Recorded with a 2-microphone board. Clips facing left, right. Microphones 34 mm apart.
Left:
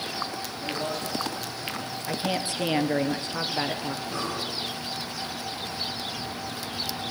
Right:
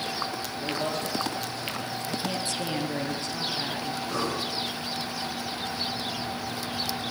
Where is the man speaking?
25° right (ahead or behind), 5 m.